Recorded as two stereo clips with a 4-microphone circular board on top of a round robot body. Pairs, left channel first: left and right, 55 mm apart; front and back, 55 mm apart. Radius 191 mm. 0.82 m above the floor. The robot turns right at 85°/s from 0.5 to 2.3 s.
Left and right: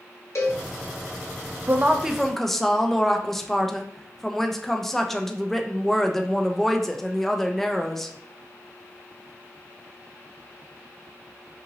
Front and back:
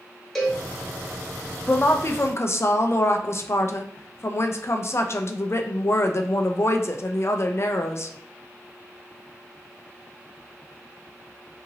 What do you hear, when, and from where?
0.3 s a cowbell: 85° left, 1.1 m; by 0.7 s 100° left, 1.1 m
1.7 s a woman speaking: 45° right, 0.6 m; by 8.1 s 5° left, 0.6 m